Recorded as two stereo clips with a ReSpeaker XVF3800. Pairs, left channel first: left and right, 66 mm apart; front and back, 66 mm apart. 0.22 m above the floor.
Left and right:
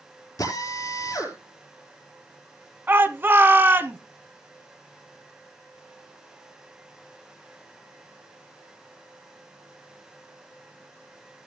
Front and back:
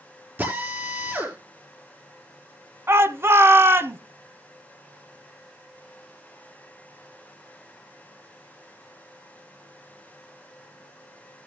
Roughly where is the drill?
Behind left.